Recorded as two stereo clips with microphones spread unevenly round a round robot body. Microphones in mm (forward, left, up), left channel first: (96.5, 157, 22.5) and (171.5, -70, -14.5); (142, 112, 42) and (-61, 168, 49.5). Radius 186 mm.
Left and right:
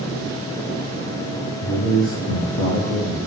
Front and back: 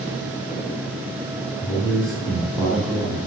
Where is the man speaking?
75° left, 3.5 m; by 3.2 s 55° left, 4 m.